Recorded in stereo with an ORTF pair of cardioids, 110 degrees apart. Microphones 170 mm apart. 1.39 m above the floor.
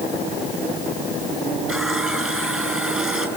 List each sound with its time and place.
1.7 s a running tap: 5° right, 7 m